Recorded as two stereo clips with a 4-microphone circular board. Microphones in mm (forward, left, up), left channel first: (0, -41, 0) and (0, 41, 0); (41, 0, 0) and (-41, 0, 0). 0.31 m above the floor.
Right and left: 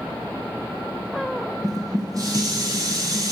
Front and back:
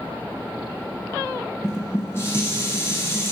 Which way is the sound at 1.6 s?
55° left.